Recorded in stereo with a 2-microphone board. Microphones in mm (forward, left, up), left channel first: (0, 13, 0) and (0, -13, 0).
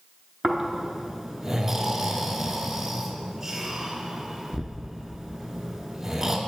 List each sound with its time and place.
0.4 s snoring: 10° right (ahead or behind), 0.8 m